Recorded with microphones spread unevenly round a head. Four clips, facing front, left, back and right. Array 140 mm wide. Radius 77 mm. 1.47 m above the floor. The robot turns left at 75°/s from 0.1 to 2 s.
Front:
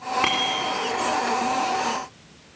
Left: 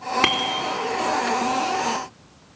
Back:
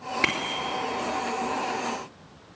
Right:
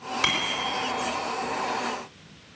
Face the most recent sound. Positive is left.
turn(degrees=-35)